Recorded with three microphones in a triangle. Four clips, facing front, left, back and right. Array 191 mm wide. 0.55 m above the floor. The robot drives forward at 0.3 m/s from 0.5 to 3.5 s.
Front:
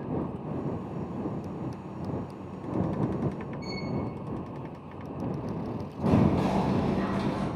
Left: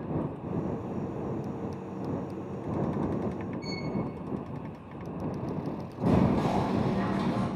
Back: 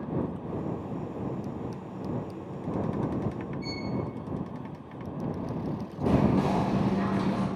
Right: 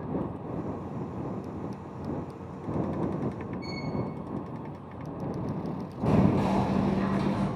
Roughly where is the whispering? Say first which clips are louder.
Right 1 dB, even; behind.